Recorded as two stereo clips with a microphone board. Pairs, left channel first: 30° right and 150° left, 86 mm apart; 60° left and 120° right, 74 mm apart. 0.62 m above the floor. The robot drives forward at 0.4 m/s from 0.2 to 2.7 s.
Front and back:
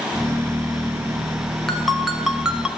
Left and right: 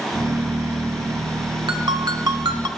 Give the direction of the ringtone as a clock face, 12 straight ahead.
4 o'clock.